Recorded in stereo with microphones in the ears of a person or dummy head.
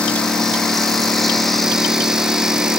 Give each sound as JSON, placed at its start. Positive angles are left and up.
{"t": 0.0, "sound": "a lawn mower", "side_deg": 5}